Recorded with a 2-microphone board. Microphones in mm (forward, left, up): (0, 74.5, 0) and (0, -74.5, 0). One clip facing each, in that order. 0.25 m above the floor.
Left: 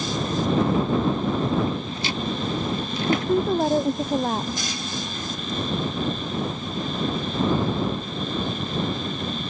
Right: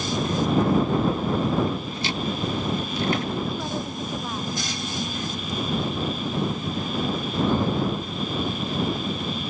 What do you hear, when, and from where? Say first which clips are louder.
3.1 s a woman speaking: left 9 dB; 50° left (ahead or behind)